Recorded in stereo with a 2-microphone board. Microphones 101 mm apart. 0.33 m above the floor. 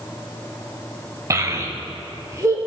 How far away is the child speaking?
About 0.8 m.